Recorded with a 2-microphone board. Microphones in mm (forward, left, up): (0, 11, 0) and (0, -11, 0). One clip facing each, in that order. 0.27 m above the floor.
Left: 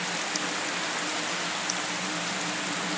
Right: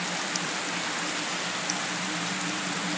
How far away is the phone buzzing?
I don't hear a phone buzzing.